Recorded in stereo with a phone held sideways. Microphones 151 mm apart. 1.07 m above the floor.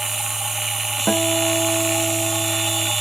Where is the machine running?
Centre (ahead or behind).